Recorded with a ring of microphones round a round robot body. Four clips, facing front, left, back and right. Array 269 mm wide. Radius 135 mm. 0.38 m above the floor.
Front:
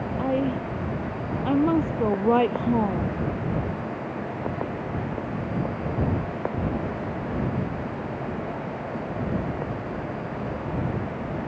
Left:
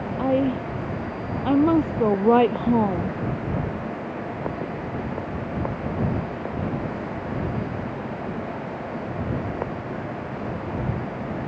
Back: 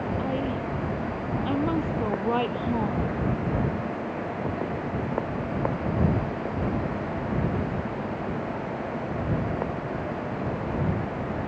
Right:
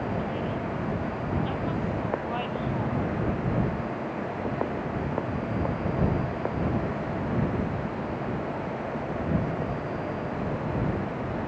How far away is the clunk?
No clunk in this recording.